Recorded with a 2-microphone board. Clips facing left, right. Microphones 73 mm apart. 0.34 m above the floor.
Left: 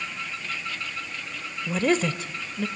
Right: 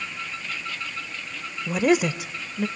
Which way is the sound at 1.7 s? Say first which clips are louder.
Right 3 dB; 10° right (ahead or behind).